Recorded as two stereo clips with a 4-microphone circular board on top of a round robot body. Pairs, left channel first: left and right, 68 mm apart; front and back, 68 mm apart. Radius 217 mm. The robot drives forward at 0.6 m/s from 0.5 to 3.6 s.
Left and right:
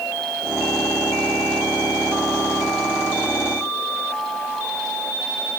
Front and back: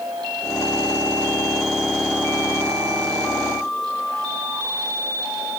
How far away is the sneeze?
No sneeze in this recording.